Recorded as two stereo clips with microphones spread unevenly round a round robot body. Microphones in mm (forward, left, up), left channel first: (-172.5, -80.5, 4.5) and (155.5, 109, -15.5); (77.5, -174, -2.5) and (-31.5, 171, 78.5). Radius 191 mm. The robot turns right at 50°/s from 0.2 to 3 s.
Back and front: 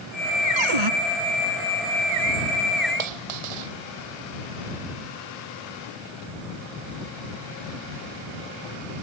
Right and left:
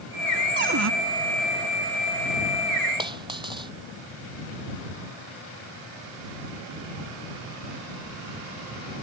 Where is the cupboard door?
45° left; by 0.9 s 60° left.